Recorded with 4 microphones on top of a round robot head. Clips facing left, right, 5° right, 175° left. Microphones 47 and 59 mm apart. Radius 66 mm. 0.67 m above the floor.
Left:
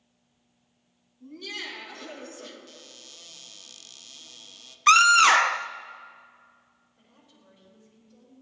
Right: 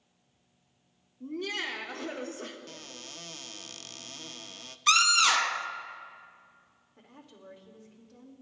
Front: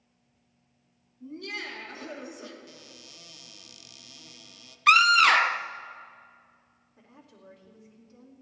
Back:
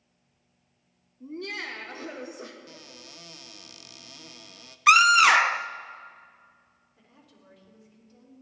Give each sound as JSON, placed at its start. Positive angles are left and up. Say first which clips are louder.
{"t": 1.2, "sound": "laughter", "louder": "right 4 dB, back 2 dB", "azimuth_deg": -135, "distance_m": 1.9}
{"t": 2.7, "sound": "a cupboard door", "louder": "right 4 dB, back 3 dB", "azimuth_deg": -130, "distance_m": 0.6}
{"t": 4.9, "sound": "a scream", "louder": "left 8 dB, back 2 dB", "azimuth_deg": 95, "distance_m": 0.6}
{"t": 7.0, "sound": "a woman speaking", "louder": "right 8 dB, front 4 dB", "azimuth_deg": -65, "distance_m": 2.5}